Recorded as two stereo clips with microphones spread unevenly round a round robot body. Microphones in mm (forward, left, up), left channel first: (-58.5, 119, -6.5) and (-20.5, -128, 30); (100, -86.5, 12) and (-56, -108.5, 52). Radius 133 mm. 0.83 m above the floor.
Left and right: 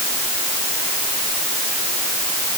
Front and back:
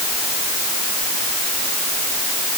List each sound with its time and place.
Only background noise.